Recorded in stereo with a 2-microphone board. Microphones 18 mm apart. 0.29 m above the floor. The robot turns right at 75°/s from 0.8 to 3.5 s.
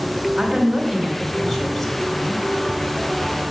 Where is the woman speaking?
75° right, 2 m; by 2.4 s 50° left, 2 m.